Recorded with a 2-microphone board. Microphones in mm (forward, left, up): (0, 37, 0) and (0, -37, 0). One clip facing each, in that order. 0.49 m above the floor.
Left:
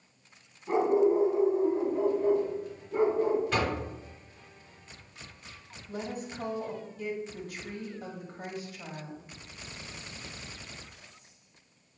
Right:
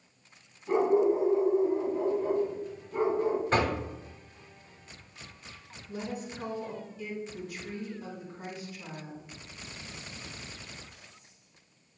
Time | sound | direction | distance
0.7 | a dog barking | 15° left (ahead or behind) | 1.2 m
3.5 | knocking | 35° right (ahead or behind) | 0.7 m
5.9 | a woman speaking | 50° left (ahead or behind) | 1.9 m